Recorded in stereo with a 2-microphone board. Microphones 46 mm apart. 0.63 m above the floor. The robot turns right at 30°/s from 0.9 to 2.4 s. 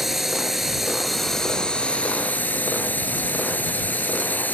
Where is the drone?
5° right; by 4.5 s 40° left.